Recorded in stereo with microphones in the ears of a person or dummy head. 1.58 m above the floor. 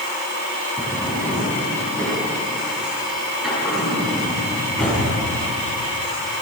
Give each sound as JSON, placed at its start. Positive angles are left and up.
{"t": 0.8, "sound": "a drawer", "side_deg": 0, "distance_m": 6.5}